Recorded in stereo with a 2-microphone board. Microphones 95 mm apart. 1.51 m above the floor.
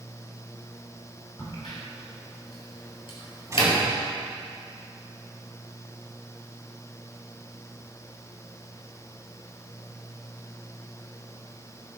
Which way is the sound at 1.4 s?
65° left (ahead or behind).